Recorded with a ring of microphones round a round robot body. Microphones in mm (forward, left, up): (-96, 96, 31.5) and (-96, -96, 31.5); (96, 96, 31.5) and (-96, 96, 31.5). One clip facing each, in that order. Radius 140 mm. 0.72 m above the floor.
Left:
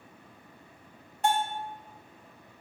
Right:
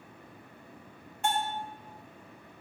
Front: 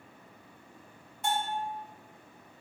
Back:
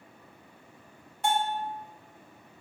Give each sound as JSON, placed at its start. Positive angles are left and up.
{"t": 1.2, "sound": "a bell", "azimuth_deg": 145, "distance_m": 0.7}